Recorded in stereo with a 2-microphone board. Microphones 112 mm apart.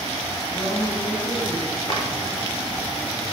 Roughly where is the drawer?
Left.